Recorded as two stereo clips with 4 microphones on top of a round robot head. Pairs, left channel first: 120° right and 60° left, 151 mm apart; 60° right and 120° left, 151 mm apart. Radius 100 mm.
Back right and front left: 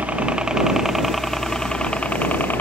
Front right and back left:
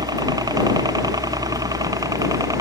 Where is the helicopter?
125° left; by 2.6 s 170° left.